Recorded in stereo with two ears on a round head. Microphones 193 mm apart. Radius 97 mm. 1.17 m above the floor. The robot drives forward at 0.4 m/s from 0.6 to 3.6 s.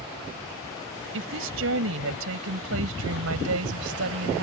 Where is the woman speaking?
65° right (ahead or behind); by 4.4 s 70° right (ahead or behind).